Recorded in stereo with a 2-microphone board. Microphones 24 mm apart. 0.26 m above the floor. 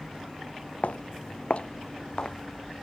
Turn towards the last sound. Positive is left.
turn(degrees=35)  # may be behind; listen again after turning